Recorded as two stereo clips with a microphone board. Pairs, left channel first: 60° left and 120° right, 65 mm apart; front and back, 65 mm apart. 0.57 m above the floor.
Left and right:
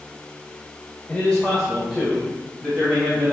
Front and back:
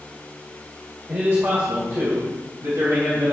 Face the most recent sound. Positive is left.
turn(degrees=175)